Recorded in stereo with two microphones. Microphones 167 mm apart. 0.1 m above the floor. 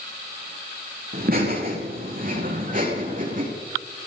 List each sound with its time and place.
1.1 s laughter: 55° right (ahead or behind), 8.5 m; by 3.5 s 50° right (ahead or behind), 8 m